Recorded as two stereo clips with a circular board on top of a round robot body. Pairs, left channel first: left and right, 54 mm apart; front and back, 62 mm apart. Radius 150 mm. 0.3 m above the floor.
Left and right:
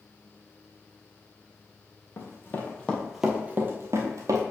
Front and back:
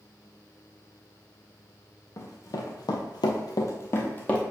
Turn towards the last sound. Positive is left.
turn(degrees=-70)